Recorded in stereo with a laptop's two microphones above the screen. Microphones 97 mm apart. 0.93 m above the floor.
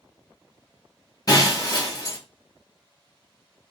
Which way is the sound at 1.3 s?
40° left (ahead or behind).